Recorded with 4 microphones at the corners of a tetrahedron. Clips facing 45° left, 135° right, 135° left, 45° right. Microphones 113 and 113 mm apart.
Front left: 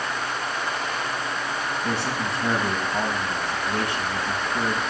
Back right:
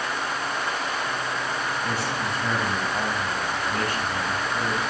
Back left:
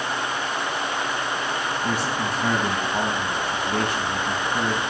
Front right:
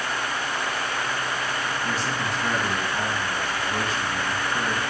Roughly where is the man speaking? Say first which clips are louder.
Front left 1 dB, back left 2 dB; behind left.